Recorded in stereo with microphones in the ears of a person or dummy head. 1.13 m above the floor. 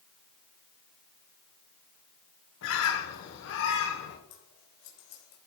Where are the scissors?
60° left (ahead or behind), 3.5 m.